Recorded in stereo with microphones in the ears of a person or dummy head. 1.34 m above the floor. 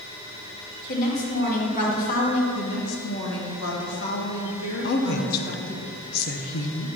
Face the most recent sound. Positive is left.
turn(degrees=55)  # may be behind; listen again after turning